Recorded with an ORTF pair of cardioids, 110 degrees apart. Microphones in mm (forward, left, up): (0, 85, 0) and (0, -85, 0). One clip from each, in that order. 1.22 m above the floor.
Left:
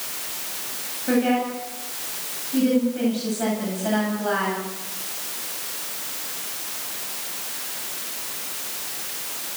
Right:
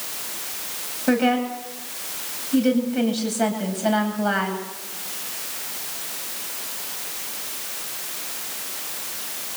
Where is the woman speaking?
50° right, 9.5 m.